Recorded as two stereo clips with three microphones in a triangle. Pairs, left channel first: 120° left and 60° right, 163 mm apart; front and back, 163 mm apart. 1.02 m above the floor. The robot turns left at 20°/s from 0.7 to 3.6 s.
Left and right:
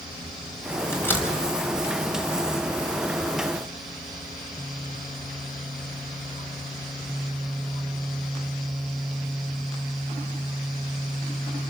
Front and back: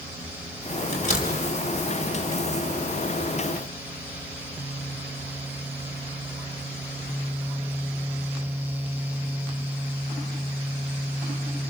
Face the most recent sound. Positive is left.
turn(degrees=-10)